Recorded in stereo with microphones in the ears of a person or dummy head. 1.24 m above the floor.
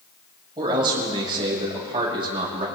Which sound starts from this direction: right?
A man speaking, at 0.6 s.